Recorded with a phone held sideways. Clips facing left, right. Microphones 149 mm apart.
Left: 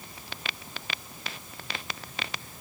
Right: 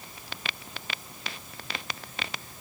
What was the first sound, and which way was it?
Only background noise.